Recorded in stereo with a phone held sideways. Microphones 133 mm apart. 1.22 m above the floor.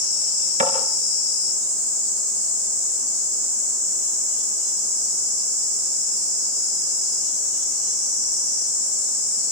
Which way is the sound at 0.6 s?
65° right (ahead or behind).